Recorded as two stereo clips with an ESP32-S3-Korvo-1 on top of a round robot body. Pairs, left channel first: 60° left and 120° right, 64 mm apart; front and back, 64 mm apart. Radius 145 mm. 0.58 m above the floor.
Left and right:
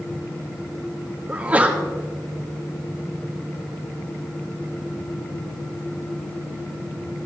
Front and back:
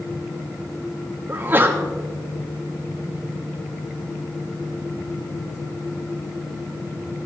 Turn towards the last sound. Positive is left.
turn(degrees=-170)